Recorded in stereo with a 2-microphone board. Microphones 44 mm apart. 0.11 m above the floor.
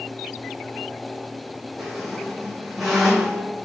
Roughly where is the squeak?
Centre.